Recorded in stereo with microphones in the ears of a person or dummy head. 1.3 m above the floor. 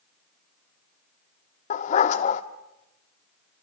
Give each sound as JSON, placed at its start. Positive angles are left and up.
{"t": 1.7, "sound": "a dog barking", "side_deg": 45, "distance_m": 1.3}